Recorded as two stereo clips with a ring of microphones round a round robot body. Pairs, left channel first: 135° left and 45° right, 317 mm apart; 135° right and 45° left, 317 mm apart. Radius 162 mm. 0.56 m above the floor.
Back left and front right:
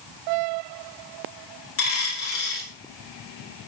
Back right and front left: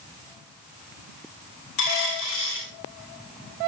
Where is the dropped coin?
175° right, 7 m.